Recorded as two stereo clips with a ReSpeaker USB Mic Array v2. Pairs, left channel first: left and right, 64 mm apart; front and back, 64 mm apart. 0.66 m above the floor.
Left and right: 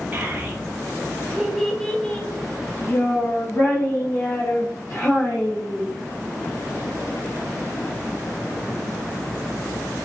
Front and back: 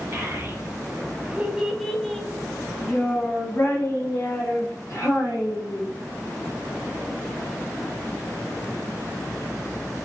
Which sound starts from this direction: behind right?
A child speaking, at 0.1 s.